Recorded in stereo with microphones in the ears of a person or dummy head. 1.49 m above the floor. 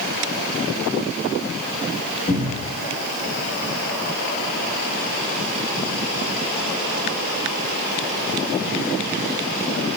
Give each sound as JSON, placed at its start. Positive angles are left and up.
{"t": 2.3, "sound": "a cupboard door", "side_deg": 70, "distance_m": 2.5}